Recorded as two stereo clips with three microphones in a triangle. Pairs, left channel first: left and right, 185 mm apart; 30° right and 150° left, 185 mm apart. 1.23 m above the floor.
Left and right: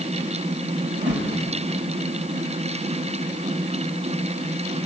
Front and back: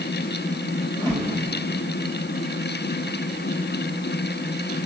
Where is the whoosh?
110° right, 2.5 m.